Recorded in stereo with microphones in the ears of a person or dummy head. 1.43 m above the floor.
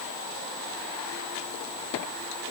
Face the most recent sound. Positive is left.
No sound to turn to.